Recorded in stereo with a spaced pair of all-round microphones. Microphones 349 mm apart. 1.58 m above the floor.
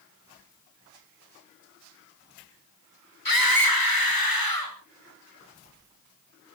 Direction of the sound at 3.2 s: 75° left (ahead or behind).